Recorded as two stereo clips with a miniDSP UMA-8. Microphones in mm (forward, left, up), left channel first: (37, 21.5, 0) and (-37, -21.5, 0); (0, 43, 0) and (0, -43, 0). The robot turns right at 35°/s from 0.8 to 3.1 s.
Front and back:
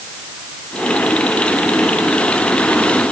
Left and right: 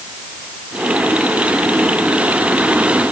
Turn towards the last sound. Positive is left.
No sound to turn to.